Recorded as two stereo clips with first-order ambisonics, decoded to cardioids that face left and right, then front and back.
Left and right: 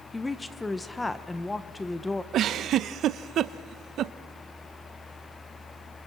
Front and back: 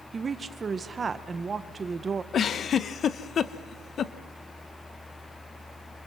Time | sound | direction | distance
0.1 | a woman speaking | 155° left | 0.7 m
2.3 | a giggle | 55° right | 0.6 m